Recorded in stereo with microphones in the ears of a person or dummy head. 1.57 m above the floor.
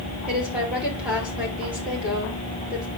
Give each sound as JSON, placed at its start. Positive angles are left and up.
{"t": 0.3, "sound": "a woman speaking", "side_deg": -10, "distance_m": 6.0}